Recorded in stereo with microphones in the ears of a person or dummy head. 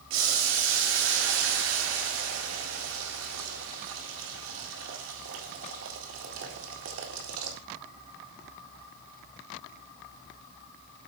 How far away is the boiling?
About 1.9 m.